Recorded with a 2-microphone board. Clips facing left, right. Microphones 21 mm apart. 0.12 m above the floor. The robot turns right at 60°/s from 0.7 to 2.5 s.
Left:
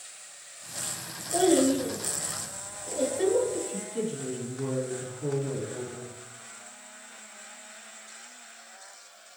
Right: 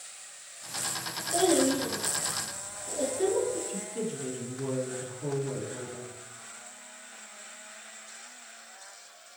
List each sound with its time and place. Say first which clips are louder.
1.3 s a child speaking: left 2 dB; 5° left (ahead or behind), 1.6 m; by 3.6 s 55° left (ahead or behind), 1.6 m
3.7 s a woman speaking: left 2 dB; 40° left (ahead or behind), 1.6 m